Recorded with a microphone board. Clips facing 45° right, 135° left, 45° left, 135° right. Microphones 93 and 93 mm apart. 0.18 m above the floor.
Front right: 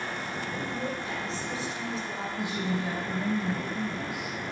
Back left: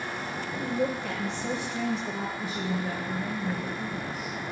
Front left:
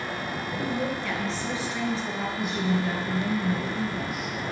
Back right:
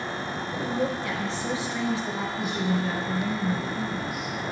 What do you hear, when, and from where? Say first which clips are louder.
0.5 s a woman speaking: back left 7 dB, back right 2 dB; 155° left, 3.5 m
2.4 s a woman speaking: front right 1 dB, front left 1 dB; 45° right, 5.5 m